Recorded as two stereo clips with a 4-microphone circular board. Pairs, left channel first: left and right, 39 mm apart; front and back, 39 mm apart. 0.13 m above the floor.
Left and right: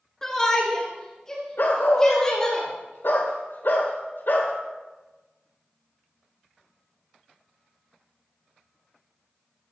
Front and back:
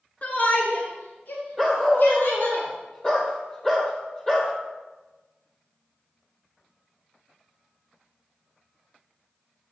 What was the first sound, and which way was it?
A shout, 20° left.